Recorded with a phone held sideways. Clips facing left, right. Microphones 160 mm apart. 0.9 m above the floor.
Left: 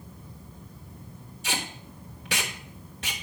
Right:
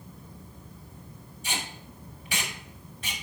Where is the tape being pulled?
75° left (ahead or behind), 1.3 m.